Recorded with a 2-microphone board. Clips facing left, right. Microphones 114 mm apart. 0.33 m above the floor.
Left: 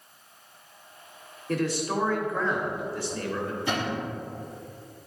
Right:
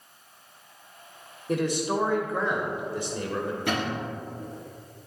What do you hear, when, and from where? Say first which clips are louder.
1.5 s a man speaking: right 1 dB; 15° right (ahead or behind), 0.8 m
3.7 s a cupboard door: left 1 dB; 65° right (ahead or behind), 2.5 m